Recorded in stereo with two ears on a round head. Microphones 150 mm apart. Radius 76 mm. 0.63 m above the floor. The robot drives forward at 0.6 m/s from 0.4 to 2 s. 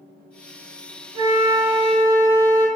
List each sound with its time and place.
1.1 s a flute: 50° right (ahead or behind), 1.3 m; by 2.7 s 35° right (ahead or behind), 1.6 m